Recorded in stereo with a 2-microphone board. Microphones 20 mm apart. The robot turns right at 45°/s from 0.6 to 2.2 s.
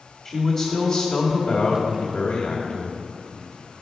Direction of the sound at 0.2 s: 40° left.